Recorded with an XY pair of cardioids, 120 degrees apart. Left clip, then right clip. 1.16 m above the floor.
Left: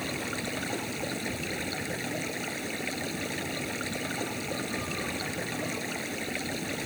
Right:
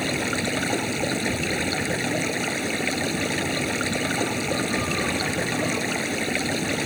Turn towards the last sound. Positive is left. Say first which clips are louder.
# right 8 dB
turn(degrees=-45)